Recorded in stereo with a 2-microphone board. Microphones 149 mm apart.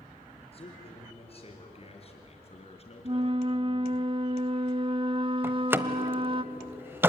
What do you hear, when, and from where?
0.5 s a man speaking: 40° left (ahead or behind), 4.5 m; by 4.0 s 45° left (ahead or behind), 3 m
3.0 s a flute: 35° right (ahead or behind), 0.5 m
5.4 s a door slam: 15° right (ahead or behind), 0.9 m